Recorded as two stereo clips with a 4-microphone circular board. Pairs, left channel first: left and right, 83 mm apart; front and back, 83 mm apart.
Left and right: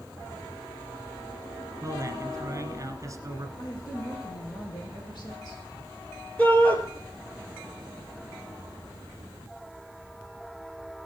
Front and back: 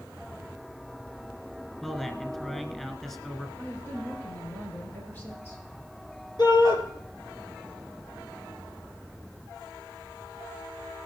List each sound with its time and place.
1.8 s a man speaking: 80° right, 1.6 m
3.6 s a woman speaking: 65° left, 6.5 m
6.4 s a shout: 20° left, 4 m